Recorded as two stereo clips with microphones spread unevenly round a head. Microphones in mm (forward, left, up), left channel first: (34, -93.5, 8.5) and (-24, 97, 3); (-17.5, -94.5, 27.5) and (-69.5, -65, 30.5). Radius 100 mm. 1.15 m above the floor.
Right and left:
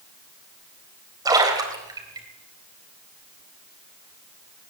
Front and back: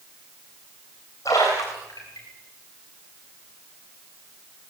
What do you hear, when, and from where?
1.2 s a splash: 35° left, 4 m